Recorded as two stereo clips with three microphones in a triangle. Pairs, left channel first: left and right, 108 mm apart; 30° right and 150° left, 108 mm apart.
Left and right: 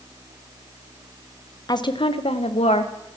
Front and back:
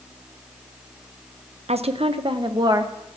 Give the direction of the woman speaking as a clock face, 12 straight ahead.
7 o'clock.